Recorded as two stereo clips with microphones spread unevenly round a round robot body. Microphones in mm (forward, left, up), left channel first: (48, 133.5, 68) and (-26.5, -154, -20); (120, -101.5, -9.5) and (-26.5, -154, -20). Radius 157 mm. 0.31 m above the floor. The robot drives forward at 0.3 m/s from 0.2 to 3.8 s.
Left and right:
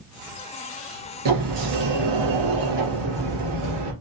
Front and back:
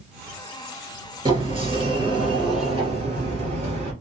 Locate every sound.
1.2 s a sliding door: 100° right, 3 m; by 3.9 s 110° right, 3 m